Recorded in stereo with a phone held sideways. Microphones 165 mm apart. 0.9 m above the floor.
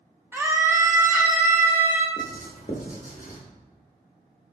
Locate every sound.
0.3 s a scream: 15° right (ahead or behind), 0.5 m
2.2 s writing: 55° left (ahead or behind), 0.8 m